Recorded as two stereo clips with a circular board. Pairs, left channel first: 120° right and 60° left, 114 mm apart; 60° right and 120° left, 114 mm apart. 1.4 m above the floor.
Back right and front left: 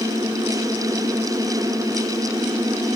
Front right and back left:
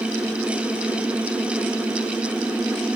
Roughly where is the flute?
I don't hear a flute.